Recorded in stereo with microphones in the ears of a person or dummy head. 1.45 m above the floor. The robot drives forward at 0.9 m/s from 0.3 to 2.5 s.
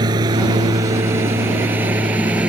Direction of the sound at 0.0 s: 25° right (ahead or behind).